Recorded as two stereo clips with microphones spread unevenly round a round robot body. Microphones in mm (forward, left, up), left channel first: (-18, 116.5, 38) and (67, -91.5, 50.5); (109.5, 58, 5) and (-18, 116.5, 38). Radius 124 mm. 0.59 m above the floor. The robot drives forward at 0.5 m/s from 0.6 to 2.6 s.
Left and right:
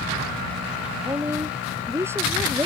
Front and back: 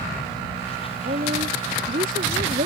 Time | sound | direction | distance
1.1 | a woman speaking | 145° right | ?